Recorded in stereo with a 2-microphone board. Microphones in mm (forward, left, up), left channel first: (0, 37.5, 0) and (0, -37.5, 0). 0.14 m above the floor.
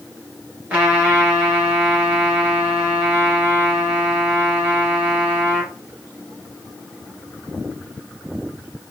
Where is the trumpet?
15° right (ahead or behind), 1.4 m.